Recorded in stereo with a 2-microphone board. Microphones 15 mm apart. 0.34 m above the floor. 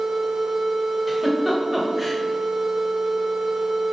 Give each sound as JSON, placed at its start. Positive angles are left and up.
{"t": 1.1, "sound": "a giggle", "side_deg": -15, "distance_m": 0.8}